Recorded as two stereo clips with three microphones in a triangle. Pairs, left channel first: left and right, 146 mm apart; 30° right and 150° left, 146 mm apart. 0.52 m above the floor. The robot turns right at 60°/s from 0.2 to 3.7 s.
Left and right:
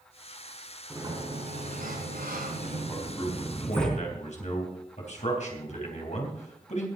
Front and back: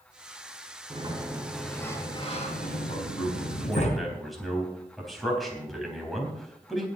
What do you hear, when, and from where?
0.9 s a sliding door: 160° right, 3.5 m; by 3.9 s 5° left, 3.5 m
2.9 s a man speaking: 10° left, 3.5 m; by 6.9 s 60° left, 3.5 m